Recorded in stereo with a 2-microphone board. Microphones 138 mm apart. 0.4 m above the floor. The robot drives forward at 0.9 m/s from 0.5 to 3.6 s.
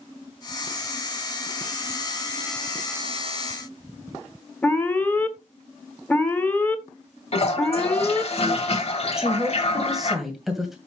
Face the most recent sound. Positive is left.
turn(degrees=0)  # may be behind; listen again after turning